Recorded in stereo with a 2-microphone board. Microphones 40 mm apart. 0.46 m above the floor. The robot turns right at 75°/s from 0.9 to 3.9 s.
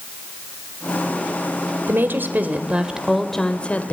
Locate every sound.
1.9 s a woman speaking: 100° right, 2 m; by 3.9 s 55° left, 2 m